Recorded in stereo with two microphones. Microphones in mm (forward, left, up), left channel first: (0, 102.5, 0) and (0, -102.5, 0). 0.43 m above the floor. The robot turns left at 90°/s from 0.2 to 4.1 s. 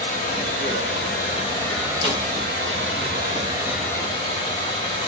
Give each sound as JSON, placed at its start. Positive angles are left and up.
{"t": 0.0, "sound": "running water", "azimuth_deg": 145, "distance_m": 0.9}
{"t": 2.0, "sound": "a snare drum", "side_deg": 25, "distance_m": 1.7}